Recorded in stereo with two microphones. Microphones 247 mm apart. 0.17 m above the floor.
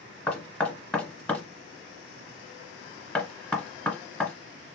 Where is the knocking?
5° left (ahead or behind), 1.3 m.